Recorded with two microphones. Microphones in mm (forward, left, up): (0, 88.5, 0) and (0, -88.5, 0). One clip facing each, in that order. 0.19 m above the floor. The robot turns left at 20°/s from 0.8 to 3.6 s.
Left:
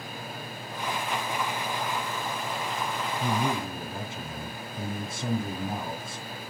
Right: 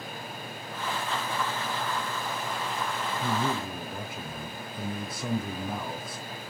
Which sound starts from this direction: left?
A man speaking, at 3.2 s.